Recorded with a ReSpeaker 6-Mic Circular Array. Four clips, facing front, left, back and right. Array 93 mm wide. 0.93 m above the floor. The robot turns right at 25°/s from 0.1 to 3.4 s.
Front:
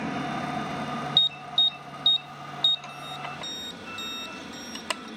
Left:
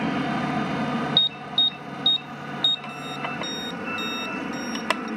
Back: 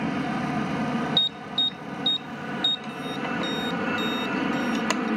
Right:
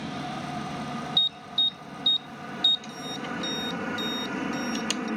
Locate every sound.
0.0 s an aircraft: 100° left; by 5.2 s 175° right
1.2 s an alarm: 45° left; by 5.1 s 100° left